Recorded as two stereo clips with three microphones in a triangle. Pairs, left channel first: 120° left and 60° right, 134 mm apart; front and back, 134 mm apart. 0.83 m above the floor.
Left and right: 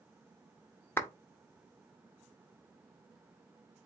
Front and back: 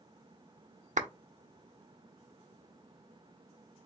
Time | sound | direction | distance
1.0 | a clap | 170° right | 0.7 m